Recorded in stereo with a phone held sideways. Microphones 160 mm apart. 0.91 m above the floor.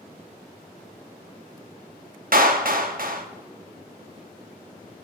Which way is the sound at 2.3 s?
65° right (ahead or behind).